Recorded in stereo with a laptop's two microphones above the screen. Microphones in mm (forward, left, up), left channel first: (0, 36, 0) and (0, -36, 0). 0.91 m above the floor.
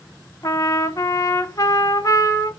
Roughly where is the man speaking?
No man speaking in this recording.